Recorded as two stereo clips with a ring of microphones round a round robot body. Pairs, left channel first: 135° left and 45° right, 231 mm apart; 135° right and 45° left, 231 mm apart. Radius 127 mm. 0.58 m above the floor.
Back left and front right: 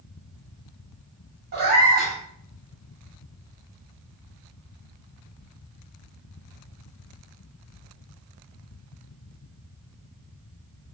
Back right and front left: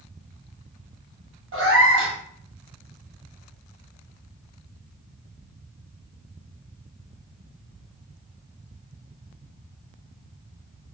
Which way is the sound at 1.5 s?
5° left.